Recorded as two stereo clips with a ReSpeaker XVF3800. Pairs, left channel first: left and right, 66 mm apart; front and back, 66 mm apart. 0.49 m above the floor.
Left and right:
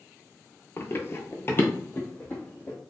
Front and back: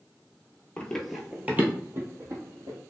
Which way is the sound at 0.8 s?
65° left.